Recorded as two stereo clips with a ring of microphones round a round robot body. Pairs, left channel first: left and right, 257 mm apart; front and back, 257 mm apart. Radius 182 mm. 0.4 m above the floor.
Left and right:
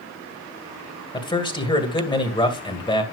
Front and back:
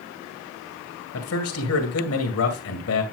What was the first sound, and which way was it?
A man speaking, 20° left.